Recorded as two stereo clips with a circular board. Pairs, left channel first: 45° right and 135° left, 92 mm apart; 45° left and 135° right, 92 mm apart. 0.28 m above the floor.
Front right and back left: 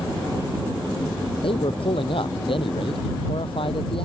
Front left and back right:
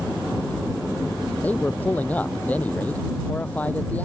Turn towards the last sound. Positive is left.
turn(degrees=-30)